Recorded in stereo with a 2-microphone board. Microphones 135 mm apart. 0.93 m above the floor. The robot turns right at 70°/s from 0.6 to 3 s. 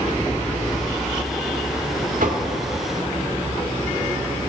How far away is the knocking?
About 1.3 m.